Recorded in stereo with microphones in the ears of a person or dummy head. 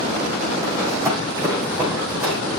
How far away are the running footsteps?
About 6.5 m.